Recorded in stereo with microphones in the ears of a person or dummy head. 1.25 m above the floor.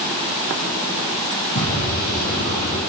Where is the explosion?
40° left (ahead or behind), 8 m.